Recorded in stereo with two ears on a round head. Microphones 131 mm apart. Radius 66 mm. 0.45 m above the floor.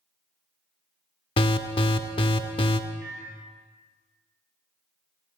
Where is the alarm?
35° left (ahead or behind), 0.5 m.